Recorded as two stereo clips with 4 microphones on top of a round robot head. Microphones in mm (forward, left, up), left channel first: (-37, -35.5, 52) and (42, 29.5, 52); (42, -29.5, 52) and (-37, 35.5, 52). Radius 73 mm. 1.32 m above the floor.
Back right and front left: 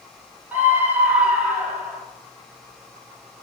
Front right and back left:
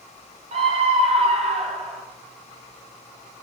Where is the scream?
115° left, 2.0 m; by 2.0 s 120° left, 3 m.